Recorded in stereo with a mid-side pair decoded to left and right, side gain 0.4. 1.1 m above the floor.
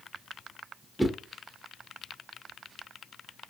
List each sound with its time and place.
1.0 s a whoosh: 10° right, 0.5 m